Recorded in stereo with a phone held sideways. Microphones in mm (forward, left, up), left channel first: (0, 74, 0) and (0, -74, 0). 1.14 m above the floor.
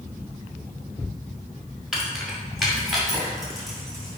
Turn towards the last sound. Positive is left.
turn(degrees=0)  # may be behind; listen again after turning